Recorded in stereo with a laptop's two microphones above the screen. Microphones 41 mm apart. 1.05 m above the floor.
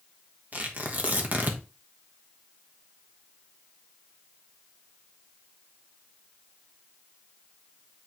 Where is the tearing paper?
45° right (ahead or behind), 1.6 m.